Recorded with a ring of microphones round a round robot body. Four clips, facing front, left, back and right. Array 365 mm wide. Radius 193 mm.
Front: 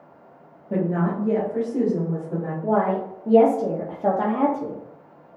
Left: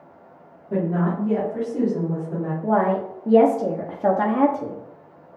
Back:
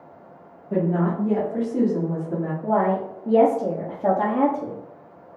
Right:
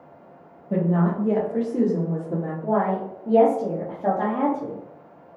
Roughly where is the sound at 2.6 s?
Left.